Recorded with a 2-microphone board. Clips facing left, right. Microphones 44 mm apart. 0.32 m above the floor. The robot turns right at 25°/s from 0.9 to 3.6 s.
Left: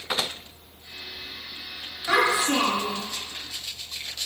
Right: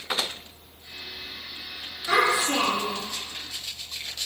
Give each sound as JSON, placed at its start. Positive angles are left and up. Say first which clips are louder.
{"t": 2.1, "sound": "a child speaking", "louder": "even", "side_deg": 30, "distance_m": 1.0}